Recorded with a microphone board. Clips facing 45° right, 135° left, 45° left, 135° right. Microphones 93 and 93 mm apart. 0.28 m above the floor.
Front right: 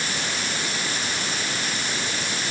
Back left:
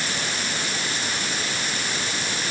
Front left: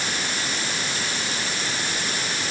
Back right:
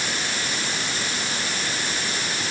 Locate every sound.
Only background noise.